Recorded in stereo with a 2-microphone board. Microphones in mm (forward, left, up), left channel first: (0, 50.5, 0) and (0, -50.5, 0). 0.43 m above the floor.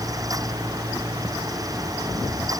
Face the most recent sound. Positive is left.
No sound to turn to.